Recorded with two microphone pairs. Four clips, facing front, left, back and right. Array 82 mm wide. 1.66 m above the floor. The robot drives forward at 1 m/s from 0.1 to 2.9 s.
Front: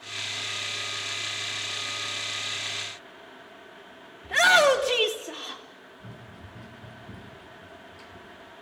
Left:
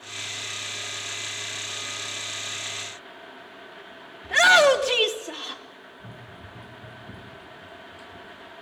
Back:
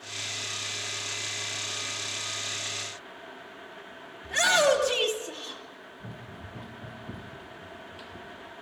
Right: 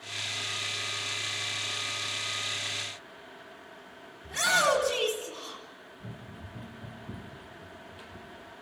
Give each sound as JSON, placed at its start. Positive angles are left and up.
{"t": 4.2, "sound": "a shout", "azimuth_deg": 80, "distance_m": 3.0}
{"t": 6.0, "sound": "running footsteps", "azimuth_deg": 180, "distance_m": 4.0}